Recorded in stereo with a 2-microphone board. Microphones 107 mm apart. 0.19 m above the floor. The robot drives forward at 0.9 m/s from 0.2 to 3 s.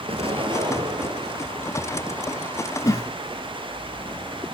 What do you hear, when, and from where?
0.1 s an explosion: 60° right (ahead or behind), 1.1 m; by 1.6 s 30° right (ahead or behind), 2 m
2.8 s a whoosh: 30° left (ahead or behind), 1.0 m; by 3.1 s 35° left (ahead or behind), 0.9 m